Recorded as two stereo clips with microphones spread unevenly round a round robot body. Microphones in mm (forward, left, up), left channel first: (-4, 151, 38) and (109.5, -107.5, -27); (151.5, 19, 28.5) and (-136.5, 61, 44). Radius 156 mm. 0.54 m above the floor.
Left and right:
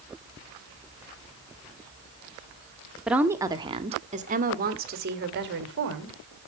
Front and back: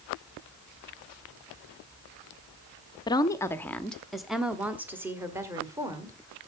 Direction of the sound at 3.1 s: 35° right.